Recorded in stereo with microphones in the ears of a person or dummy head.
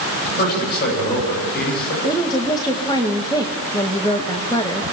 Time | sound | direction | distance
0.4 | a man speaking | 55° left (ahead or behind) | 9 m
2.0 | a woman speaking | 25° left (ahead or behind) | 1.9 m